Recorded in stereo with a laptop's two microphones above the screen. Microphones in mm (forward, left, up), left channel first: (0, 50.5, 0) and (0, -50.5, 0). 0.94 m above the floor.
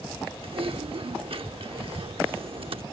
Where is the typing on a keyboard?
65° right (ahead or behind).